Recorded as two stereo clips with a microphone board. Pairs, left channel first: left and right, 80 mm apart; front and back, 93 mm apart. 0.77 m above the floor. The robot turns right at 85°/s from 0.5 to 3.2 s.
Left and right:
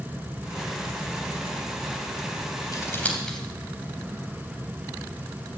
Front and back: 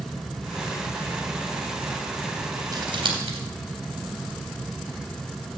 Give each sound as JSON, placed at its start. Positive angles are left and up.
{"t": 2.7, "sound": "scissors", "azimuth_deg": 130, "distance_m": 3.0}